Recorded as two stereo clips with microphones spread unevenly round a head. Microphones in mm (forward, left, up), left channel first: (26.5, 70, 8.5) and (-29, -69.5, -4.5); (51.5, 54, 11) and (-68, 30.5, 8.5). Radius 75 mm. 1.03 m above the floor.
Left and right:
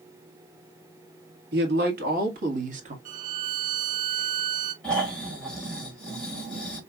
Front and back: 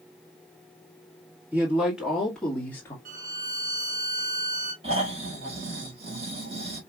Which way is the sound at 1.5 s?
90° right.